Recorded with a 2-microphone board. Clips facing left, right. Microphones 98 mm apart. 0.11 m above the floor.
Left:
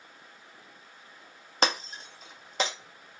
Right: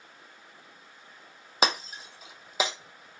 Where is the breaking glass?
5° right (ahead or behind), 0.6 m.